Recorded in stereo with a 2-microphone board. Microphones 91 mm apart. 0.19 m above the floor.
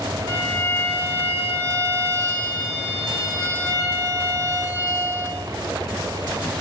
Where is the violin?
30° left (ahead or behind), 1.1 m.